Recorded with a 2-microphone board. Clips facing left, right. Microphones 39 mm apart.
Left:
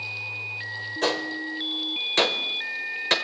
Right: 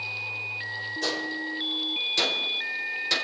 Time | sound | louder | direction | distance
1.0 | a gunshot | left 5 dB | 50° left (ahead or behind) | 1.4 m